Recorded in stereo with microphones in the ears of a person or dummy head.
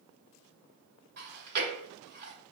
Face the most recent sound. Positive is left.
turn(degrees=-50)  # may be behind; listen again after turning